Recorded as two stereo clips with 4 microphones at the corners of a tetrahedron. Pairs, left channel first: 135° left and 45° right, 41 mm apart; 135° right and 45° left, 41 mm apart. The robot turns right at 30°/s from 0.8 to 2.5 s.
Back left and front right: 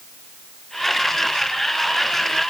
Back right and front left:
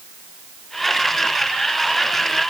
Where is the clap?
I don't hear a clap.